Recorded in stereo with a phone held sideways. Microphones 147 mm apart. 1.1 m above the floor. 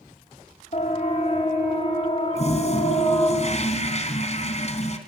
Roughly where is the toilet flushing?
Left.